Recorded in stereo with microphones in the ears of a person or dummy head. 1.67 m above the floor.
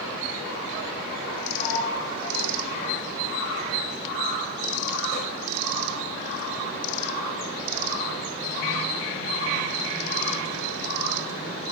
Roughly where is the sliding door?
Left.